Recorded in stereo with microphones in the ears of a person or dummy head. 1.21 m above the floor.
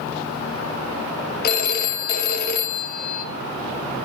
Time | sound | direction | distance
1.4 | a phone ringing | 55° left (ahead or behind) | 1.0 m